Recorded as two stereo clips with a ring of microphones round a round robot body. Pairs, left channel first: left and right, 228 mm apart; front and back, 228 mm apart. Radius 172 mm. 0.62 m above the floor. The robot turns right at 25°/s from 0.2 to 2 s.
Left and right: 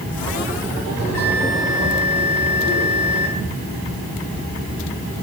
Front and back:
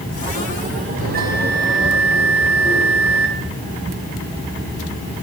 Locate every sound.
1.0 s a bell: 125° left, 5.5 m; by 3.3 s 150° left, 5.5 m